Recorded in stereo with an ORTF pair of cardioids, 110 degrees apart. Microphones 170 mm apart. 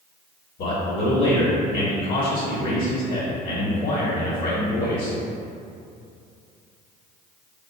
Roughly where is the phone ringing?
No phone ringing in this recording.